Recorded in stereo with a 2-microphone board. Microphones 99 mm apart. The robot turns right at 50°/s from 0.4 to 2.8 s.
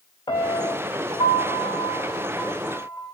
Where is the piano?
55° left, 2 m; by 3.1 s 175° left, 2 m.